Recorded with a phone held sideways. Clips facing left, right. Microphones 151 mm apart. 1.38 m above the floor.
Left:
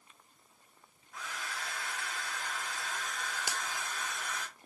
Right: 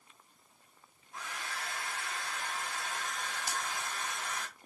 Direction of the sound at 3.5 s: 90° left.